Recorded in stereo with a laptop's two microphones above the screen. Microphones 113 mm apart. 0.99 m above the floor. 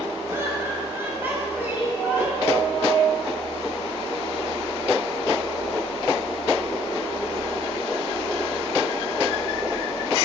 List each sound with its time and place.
0.3 s laughter: 20° right (ahead or behind), 5.5 m; by 2.6 s 10° right (ahead or behind), 7 m